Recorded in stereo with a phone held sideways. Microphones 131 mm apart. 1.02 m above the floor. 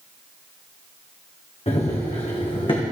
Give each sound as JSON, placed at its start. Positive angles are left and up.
{"t": 1.7, "sound": "running footsteps", "side_deg": 50, "distance_m": 3.0}